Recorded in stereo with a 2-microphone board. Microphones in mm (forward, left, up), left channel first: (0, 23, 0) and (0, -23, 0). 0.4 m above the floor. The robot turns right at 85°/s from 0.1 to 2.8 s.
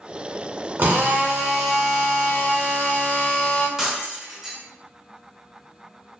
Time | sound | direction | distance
0.8 | a drill | 75° right | 0.7 m
3.8 | breaking glass | 15° right (ahead or behind) | 0.6 m